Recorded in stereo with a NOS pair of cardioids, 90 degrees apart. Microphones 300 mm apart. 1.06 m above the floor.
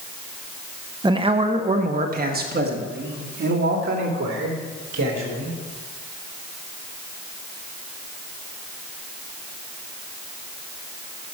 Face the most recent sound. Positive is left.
turn(degrees=-40)